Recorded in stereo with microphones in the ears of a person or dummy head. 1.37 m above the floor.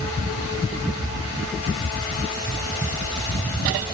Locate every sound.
Only background noise.